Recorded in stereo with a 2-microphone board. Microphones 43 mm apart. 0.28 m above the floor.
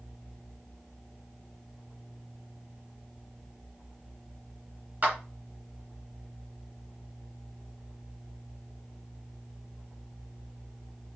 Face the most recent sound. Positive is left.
turn(degrees=-40)  # may be behind; listen again after turning